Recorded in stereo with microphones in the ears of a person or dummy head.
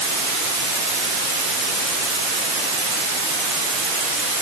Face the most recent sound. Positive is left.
No sound to turn to.